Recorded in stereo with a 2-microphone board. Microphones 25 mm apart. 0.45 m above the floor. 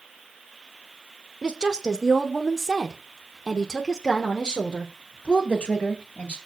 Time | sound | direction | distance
1.4 | a woman speaking | 40° right (ahead or behind) | 1.4 m